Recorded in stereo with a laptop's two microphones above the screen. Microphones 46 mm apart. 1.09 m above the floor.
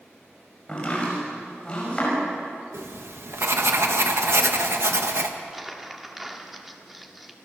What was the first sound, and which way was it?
Chopping, 25° left (ahead or behind).